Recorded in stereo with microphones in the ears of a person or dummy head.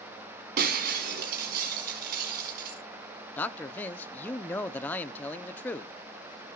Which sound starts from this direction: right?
Breaking glass, at 0.6 s.